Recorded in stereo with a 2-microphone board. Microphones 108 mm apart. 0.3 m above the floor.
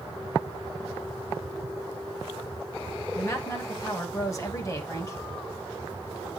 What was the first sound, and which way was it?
A woman speaking, 30° left (ahead or behind).